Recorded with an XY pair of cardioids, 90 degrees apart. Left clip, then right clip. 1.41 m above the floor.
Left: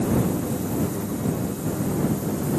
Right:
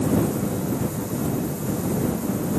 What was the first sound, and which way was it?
Only background noise.